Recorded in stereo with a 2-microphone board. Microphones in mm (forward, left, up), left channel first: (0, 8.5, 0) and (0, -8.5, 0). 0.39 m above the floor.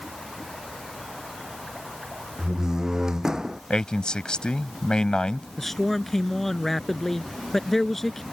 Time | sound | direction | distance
2.4 | a door slam | 35° right (ahead or behind) | ?
3.7 | a man speaking | 60° left (ahead or behind) | ?
5.6 | a man speaking | 15° left (ahead or behind) | ?